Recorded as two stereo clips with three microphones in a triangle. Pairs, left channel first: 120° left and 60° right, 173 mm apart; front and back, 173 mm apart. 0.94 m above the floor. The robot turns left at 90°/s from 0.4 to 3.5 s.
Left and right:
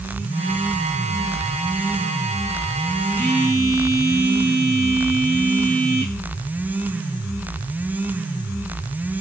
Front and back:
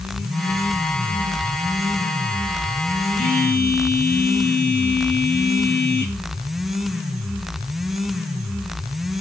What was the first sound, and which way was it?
A phone buzzing, 45° left.